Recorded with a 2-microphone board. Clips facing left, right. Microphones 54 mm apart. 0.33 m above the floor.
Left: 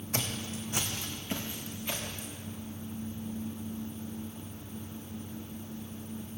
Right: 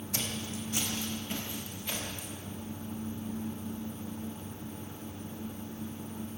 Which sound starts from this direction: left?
Footsteps, at 0.1 s.